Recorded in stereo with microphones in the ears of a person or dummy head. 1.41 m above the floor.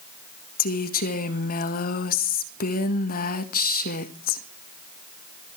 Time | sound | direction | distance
0.6 | a woman speaking | 45° left (ahead or behind) | 1.5 m